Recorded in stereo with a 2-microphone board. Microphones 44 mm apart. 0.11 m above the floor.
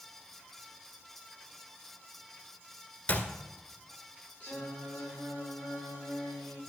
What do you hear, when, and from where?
3.1 s a clap: 35° left (ahead or behind), 1.7 m
4.4 s singing: 30° left (ahead or behind), 6.5 m